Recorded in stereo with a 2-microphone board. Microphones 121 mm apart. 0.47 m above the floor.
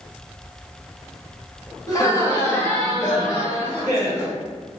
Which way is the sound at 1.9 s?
35° left (ahead or behind).